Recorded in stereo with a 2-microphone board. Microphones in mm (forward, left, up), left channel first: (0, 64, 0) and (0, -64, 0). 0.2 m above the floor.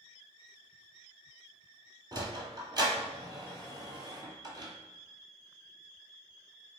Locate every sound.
2.1 s a sliding door: 35° right (ahead or behind), 0.7 m